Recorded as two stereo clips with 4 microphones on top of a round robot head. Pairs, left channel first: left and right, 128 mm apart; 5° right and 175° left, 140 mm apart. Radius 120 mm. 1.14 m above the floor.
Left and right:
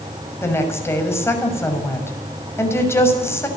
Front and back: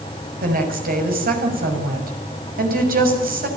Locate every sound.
0.4 s a woman speaking: 160° left, 6.5 m